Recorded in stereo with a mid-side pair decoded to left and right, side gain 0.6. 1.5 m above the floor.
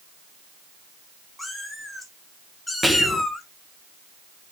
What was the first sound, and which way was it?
A cat meowing, 10° left.